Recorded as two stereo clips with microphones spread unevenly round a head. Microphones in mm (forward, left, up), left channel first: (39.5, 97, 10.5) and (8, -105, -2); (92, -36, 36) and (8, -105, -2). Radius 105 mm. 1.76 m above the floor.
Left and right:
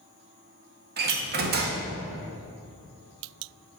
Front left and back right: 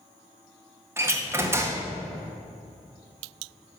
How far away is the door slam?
About 1.6 m.